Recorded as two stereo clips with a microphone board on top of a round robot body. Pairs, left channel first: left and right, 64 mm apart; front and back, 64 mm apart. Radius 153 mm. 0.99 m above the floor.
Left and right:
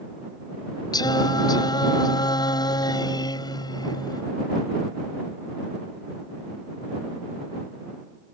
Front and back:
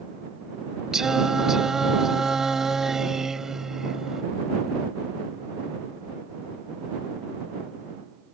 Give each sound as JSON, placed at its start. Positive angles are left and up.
{"t": 0.9, "sound": "singing", "azimuth_deg": 95}